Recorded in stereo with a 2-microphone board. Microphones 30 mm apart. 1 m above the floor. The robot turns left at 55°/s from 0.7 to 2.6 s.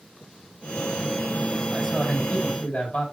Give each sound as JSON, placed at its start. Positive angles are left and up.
{"t": 1.7, "sound": "a man speaking", "azimuth_deg": 175, "distance_m": 4.5}